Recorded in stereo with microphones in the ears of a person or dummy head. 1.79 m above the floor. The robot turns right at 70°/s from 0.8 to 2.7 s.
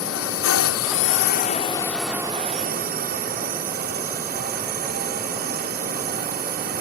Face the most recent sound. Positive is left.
turn(degrees=-130)